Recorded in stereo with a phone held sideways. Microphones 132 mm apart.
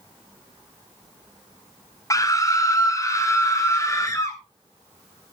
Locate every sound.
2.1 s a scream: 25° left (ahead or behind), 1.9 m